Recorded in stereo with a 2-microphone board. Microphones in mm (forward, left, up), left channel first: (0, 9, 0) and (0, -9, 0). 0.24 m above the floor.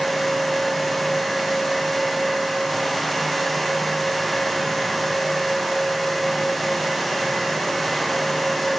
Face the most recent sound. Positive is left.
No sound to turn to.